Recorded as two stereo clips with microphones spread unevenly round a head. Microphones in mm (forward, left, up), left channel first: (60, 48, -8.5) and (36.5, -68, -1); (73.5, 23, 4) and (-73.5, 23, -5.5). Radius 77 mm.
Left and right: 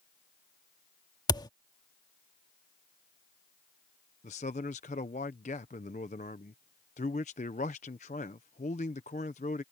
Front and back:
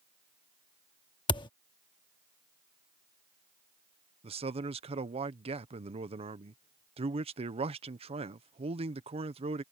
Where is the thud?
40° left.